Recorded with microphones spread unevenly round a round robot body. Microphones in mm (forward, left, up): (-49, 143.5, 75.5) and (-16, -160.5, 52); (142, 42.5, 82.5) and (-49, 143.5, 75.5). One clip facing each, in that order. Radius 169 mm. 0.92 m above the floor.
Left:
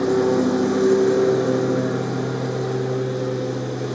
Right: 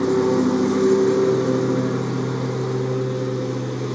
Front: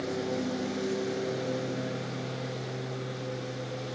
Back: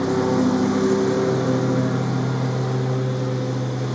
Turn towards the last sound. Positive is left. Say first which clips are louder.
# even, back 12 dB
turn(degrees=-165)